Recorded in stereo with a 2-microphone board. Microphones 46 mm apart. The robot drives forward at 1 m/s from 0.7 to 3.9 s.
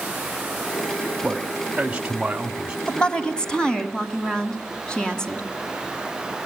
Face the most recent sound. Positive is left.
turn(degrees=15)  # may be behind; listen again after turning